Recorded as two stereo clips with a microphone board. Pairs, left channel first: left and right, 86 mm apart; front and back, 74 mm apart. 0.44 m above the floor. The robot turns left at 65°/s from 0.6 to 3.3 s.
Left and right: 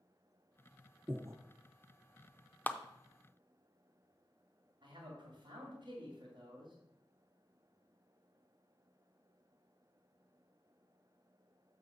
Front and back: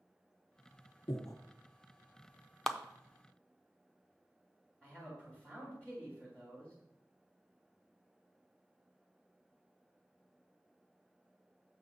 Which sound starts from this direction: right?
A man speaking, at 4.8 s.